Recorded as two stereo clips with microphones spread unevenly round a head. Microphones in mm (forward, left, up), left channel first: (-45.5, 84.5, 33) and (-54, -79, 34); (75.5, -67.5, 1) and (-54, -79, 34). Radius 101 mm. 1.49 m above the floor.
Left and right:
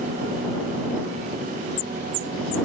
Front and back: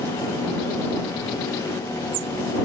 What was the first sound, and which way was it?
Only background noise.